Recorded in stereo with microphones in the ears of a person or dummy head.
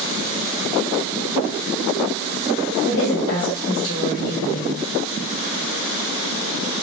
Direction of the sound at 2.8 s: 50° left (ahead or behind).